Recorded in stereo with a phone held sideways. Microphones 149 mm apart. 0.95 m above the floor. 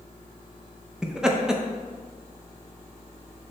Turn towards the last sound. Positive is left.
turn(degrees=-5)  # may be behind; listen again after turning